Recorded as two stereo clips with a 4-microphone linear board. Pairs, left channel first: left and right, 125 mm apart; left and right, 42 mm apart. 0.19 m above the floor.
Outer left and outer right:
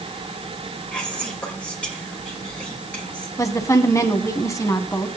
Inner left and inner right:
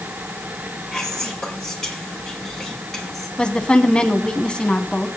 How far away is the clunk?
I don't hear a clunk.